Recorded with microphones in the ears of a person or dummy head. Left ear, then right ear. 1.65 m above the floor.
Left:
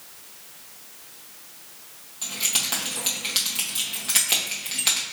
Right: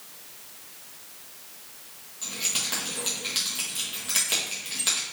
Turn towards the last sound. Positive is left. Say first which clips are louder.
# left 3 dB
turn(degrees=15)  # may be behind; listen again after turning